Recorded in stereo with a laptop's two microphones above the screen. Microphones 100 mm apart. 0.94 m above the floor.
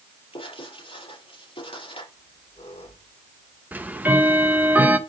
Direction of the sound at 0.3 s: 65° left (ahead or behind).